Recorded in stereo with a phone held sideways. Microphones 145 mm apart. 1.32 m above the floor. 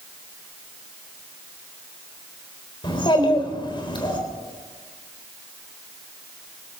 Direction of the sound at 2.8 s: 35° left (ahead or behind).